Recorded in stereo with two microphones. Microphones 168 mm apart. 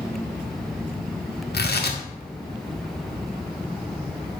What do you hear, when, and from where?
1.5 s tearing paper: 70° left (ahead or behind), 1.7 m